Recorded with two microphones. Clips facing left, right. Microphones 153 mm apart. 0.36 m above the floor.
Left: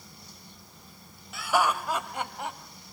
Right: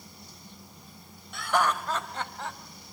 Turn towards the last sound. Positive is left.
turn(degrees=15)  # may be behind; listen again after turning